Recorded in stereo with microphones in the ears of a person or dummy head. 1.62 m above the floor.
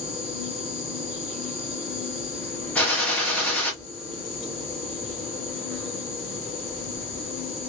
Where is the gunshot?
10° left (ahead or behind), 1.0 m.